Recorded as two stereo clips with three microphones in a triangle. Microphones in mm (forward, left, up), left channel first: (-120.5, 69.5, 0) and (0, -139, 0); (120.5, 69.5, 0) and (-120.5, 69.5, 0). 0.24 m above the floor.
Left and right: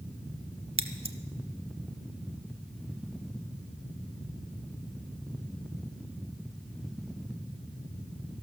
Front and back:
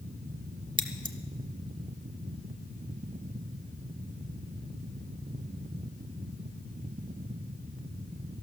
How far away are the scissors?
About 0.9 m.